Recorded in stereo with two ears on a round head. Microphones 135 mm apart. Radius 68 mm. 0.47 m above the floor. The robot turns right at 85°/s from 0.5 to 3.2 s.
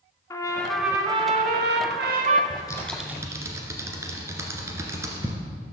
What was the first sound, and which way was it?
A trumpet, 160° left.